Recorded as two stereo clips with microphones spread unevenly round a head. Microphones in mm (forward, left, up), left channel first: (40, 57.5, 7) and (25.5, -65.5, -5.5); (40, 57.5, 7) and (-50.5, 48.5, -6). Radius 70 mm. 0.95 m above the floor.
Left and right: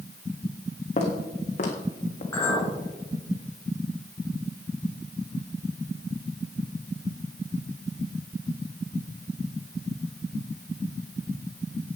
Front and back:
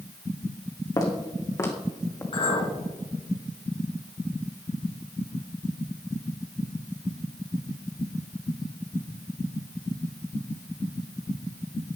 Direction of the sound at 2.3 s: 15° left.